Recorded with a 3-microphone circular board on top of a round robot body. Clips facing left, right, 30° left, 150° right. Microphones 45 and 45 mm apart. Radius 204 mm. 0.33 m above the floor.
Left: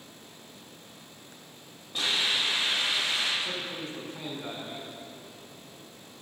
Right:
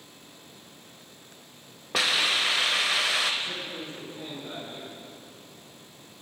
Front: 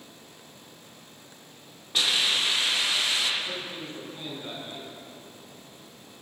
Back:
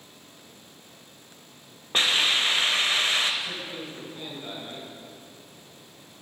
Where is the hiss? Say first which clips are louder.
Right 3 dB, back 2 dB; 95° right, 1.3 m.